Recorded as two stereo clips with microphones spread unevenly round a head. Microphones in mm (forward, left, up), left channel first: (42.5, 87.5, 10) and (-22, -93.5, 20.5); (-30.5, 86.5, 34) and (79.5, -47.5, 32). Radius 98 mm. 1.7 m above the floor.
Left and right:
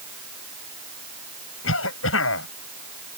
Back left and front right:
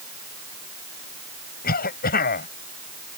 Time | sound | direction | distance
1.6 | a cough | 95° left | ?